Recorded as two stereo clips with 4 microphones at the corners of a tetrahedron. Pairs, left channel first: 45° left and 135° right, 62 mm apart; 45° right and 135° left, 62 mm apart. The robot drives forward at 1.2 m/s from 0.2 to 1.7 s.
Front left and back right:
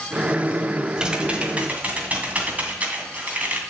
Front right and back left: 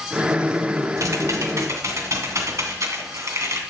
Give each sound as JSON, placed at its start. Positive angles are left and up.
{"t": 1.0, "sound": "typing on a keyboard", "azimuth_deg": 150, "distance_m": 1.6}